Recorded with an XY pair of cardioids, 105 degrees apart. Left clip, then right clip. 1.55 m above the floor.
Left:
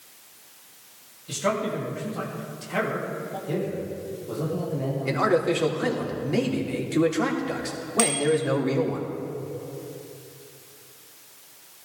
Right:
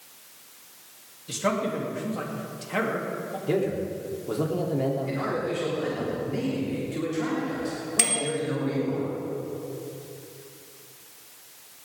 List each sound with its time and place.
1.3 s a man speaking: 5° right, 3.5 m
3.5 s a man speaking: 45° right, 3.5 m
5.0 s a man speaking: 65° left, 3 m
8.0 s a bicycle bell: 20° right, 3 m